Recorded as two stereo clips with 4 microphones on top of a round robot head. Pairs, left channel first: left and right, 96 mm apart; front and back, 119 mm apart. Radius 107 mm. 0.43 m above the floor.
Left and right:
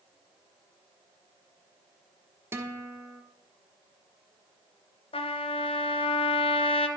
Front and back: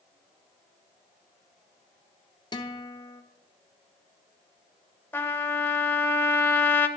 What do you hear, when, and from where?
2.5 s a guitar: 35° right, 0.9 m
5.1 s a trumpet: 75° left, 1.0 m